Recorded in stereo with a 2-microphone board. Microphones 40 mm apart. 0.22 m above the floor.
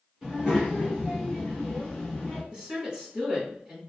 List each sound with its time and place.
0.2 s a child speaking: 25° right (ahead or behind), 1.4 m; by 2.4 s 10° left (ahead or behind), 1.9 m
2.5 s a woman speaking: 25° right (ahead or behind), 1.8 m